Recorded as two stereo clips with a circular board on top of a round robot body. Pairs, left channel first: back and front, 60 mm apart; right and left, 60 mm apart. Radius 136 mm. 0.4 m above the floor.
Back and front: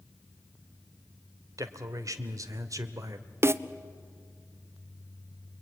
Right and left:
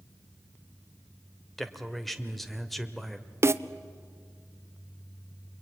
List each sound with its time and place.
1.6 s a man speaking: straight ahead, 1.7 m
3.4 s a snare drum: 45° left, 0.6 m